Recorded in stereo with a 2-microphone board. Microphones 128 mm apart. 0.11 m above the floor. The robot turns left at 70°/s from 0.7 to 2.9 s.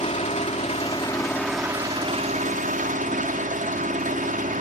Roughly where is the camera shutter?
No camera shutter in this recording.